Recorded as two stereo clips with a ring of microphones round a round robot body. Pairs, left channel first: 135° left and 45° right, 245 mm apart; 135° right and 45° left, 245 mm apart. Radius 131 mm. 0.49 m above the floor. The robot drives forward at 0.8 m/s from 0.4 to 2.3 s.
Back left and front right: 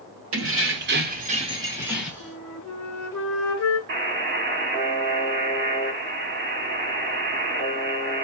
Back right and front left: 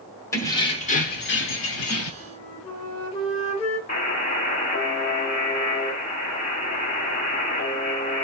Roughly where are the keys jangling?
Ahead right.